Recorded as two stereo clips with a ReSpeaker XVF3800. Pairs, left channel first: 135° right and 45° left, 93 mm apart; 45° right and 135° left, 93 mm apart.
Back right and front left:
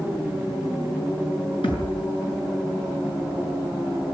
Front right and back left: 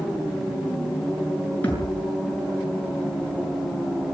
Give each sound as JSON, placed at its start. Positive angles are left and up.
{"t": 1.6, "sound": "a thud", "azimuth_deg": -115, "distance_m": 6.5}